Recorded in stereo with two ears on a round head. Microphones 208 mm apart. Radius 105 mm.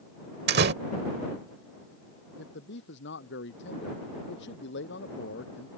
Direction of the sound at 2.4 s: 55° left (ahead or behind).